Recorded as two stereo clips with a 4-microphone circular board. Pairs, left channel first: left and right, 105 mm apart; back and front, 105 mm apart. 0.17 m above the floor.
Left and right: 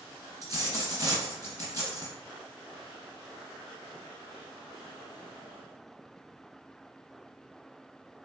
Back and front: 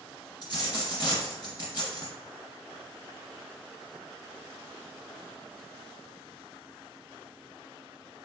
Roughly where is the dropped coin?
Behind right.